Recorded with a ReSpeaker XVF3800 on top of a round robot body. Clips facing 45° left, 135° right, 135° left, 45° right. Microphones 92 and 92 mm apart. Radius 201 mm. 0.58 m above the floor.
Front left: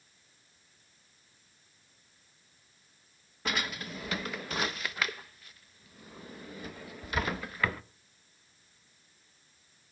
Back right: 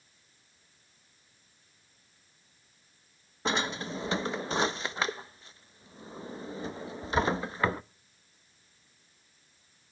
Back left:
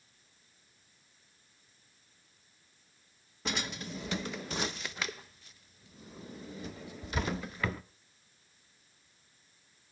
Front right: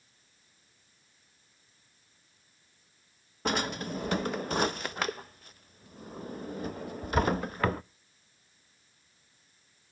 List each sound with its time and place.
3.5 s a drawer: 75° right, 0.5 m